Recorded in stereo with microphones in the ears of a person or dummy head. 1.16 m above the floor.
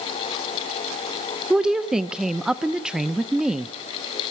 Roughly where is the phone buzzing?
I don't hear a phone buzzing.